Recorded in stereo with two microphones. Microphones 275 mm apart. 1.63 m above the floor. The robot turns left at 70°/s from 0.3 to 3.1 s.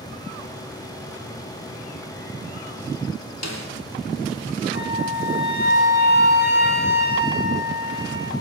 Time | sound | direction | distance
3.4 | a snare drum | 75° left (ahead or behind) | 3 m
4.7 | a flute | 35° left (ahead or behind) | 4 m